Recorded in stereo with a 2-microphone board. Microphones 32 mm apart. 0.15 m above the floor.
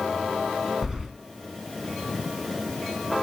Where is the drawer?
I don't hear a drawer.